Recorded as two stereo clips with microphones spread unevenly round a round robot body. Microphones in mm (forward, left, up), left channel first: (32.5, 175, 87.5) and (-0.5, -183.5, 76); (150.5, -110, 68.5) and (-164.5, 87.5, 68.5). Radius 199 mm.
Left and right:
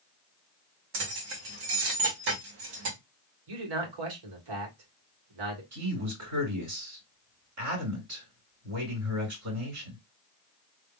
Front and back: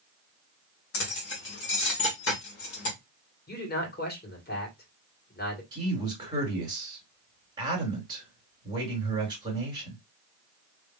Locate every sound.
0.9 s keys jangling: 85° right, 1.9 m
3.5 s a man speaking: 95° right, 2 m
5.7 s a man speaking: 135° right, 3 m